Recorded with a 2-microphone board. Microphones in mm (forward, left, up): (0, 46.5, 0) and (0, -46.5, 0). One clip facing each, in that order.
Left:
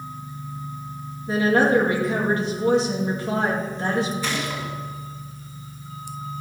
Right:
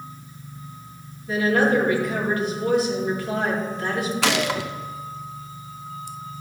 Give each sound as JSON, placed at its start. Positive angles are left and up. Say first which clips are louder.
{"t": 1.3, "sound": "a woman speaking", "louder": "left 1 dB", "side_deg": 30, "distance_m": 2.5}
{"t": 4.2, "sound": "a gunshot", "louder": "right 5 dB", "side_deg": -80, "distance_m": 0.6}